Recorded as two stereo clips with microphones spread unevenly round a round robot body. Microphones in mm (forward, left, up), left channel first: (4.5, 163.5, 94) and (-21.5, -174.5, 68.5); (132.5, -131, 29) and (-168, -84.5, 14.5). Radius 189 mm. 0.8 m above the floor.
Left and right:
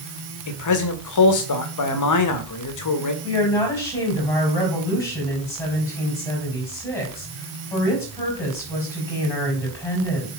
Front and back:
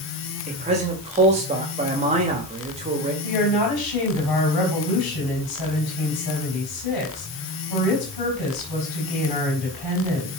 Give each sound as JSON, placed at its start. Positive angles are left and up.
{"t": 0.5, "sound": "a man speaking", "azimuth_deg": 105, "distance_m": 1.4}
{"t": 3.2, "sound": "a woman speaking", "azimuth_deg": 5, "distance_m": 4.0}